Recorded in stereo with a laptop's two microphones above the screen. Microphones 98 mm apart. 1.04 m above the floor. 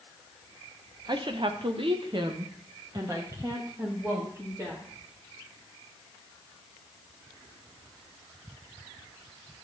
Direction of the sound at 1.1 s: 45° right (ahead or behind).